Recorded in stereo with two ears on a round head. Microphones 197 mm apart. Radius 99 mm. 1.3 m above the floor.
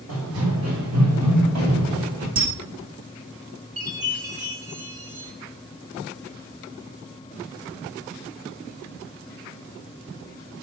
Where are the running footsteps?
75° right (ahead or behind), 5 m; by 2.3 s 70° right (ahead or behind), 6.5 m.